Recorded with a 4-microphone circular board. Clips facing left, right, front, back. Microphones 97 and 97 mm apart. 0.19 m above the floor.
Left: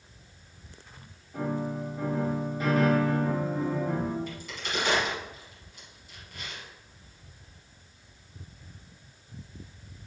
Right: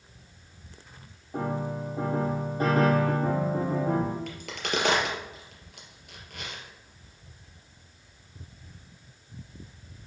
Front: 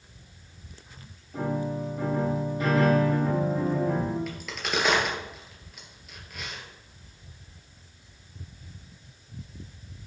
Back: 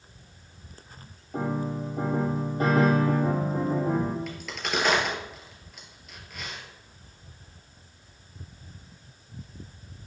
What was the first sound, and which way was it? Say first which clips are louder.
A piano: even, even; 135° right.